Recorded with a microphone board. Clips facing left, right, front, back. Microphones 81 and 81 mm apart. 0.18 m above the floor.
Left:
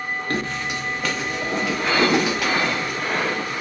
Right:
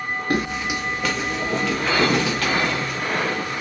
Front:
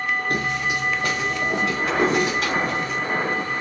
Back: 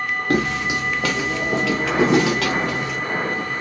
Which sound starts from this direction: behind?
Footsteps, at 0.3 s.